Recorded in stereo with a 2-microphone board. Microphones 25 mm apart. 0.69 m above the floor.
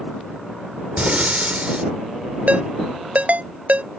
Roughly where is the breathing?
Right.